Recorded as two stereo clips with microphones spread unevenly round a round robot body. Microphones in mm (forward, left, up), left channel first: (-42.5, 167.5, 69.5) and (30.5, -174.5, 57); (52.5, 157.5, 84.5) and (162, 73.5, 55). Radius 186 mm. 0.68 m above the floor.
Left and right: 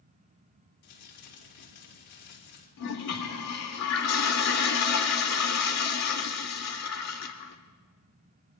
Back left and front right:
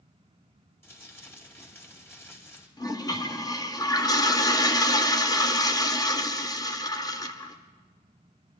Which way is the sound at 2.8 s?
75° left.